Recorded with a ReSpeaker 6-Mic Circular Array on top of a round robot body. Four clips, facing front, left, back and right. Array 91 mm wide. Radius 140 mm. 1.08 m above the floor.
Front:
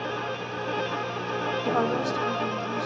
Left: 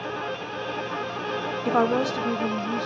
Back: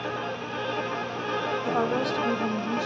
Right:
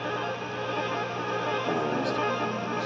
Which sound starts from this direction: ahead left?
A woman speaking, at 1.6 s.